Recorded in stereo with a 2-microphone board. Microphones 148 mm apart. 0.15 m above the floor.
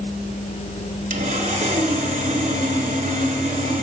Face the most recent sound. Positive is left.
turn(degrees=-55)  # may be behind; listen again after turning